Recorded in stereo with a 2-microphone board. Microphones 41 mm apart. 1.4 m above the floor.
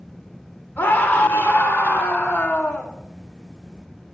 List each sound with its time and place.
0.8 s a scream: 65° left (ahead or behind), 2.5 m; by 2.9 s 60° left (ahead or behind), 1.5 m